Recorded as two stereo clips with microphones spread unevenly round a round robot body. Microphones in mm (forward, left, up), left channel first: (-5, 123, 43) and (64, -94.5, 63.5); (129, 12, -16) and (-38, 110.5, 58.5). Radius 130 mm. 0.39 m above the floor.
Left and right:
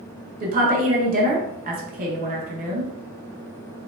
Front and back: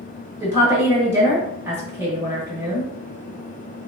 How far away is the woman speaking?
About 1.4 m.